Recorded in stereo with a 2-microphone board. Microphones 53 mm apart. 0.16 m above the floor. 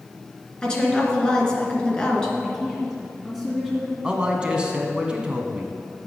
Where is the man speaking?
20° right (ahead or behind), 1.1 m.